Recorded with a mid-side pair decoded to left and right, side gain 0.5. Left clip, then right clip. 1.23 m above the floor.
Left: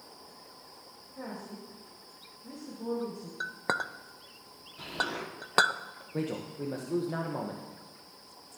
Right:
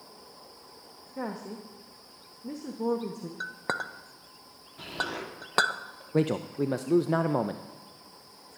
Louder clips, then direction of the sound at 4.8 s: Even; 5° right.